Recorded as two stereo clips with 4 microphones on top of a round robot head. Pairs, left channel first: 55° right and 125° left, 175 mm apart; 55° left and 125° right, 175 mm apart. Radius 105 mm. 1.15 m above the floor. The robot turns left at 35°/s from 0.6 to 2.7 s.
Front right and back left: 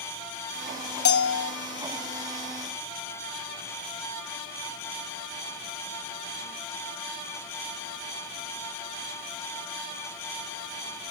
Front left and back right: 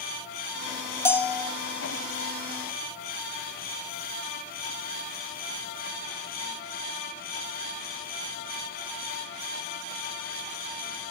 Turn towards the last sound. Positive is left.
turn(degrees=-80)